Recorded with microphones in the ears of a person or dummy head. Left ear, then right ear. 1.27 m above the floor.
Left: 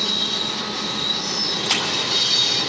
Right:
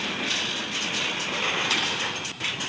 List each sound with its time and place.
1.6 s a splash: 15° left (ahead or behind), 5.5 m